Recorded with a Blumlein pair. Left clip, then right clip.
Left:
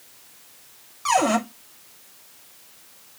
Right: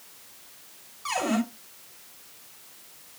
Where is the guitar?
I don't hear a guitar.